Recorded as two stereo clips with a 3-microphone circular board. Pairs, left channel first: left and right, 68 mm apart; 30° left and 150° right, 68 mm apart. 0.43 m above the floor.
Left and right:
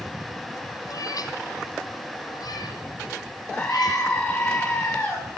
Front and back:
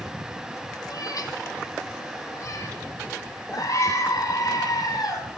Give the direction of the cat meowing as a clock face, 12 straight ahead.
10 o'clock.